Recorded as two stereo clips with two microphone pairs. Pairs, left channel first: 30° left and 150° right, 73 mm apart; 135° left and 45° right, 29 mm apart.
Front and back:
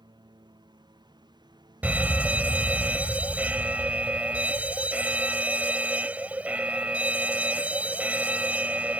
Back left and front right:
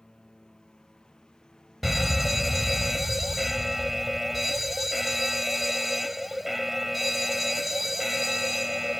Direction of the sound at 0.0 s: 160° right.